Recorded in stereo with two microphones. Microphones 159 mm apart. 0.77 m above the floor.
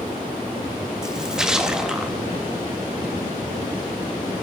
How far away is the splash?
About 0.6 m.